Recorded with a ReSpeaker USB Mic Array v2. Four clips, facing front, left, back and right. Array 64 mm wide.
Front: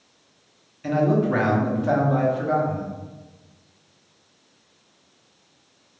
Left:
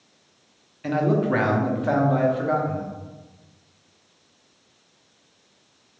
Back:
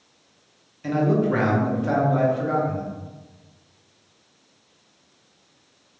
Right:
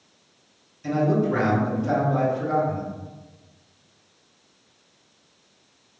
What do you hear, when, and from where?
0.8 s a man speaking: 90° left, 0.6 m